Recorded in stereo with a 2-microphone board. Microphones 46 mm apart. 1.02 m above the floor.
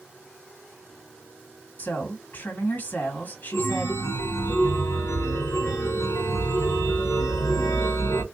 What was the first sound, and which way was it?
A woman speaking, 35° left (ahead or behind).